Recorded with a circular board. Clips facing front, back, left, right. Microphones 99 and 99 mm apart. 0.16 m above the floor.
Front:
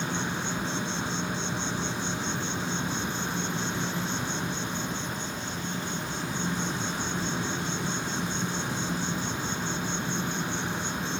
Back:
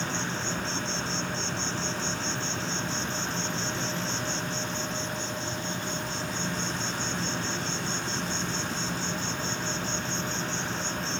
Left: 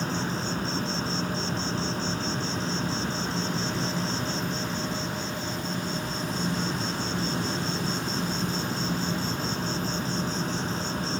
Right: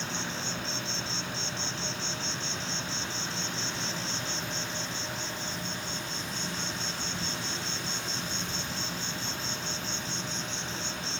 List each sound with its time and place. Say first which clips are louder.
0.0 s an insect: front 1 dB, left 7 dB; 70° left